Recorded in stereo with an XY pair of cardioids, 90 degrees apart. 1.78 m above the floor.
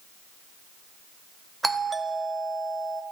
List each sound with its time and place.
1.6 s a doorbell: 15° right, 1.3 m